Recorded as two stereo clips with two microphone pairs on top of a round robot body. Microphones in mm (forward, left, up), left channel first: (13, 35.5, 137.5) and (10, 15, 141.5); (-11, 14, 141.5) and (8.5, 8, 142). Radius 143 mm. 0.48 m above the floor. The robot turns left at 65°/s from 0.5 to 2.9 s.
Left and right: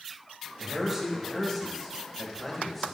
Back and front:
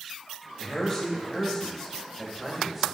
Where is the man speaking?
170° right, 1.3 m; by 2.9 s 40° left, 1.3 m.